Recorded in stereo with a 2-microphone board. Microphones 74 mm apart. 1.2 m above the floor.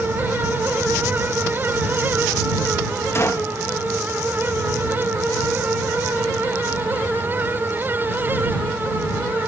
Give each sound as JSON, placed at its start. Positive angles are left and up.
{"t": 3.1, "sound": "a gunshot", "side_deg": 40}